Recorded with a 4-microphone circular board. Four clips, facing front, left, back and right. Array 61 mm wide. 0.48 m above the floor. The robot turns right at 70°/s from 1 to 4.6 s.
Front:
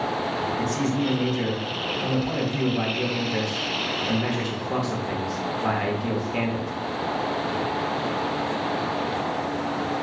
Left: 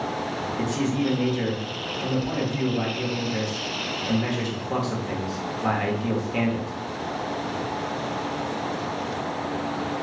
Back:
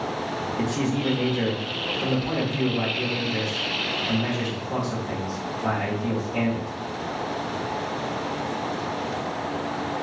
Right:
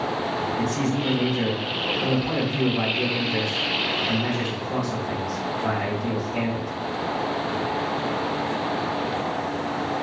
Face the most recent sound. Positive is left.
turn(degrees=50)